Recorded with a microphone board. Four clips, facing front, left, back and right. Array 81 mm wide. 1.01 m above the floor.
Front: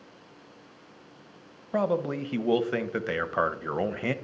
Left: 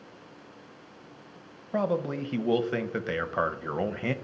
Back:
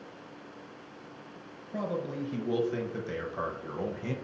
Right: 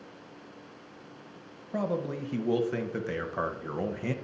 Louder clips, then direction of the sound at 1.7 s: Left 3 dB, front 7 dB; 25° left.